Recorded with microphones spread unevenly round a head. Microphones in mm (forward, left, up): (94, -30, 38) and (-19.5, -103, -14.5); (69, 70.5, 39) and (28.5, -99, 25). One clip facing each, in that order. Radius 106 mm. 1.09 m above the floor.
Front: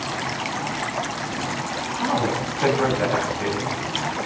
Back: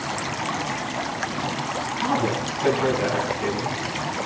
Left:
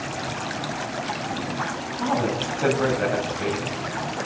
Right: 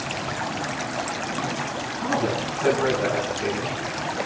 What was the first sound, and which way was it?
A woman speaking, 75° left.